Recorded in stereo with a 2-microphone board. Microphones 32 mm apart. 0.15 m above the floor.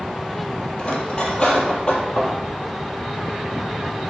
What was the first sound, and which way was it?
Cutlery clinking, 25° left (ahead or behind).